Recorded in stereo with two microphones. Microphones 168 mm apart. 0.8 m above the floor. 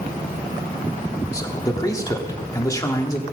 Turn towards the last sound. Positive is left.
turn(degrees=20)  # may be behind; listen again after turning